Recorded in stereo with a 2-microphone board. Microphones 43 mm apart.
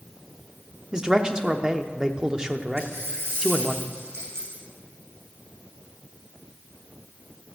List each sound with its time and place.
0.9 s a man speaking: 20° right (ahead or behind), 0.8 m
2.8 s a dropped coin: 85° right, 7 m